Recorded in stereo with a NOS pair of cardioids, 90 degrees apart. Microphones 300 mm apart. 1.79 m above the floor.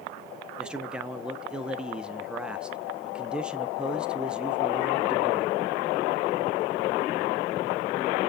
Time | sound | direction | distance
0.6 | a man speaking | 5° right | 0.7 m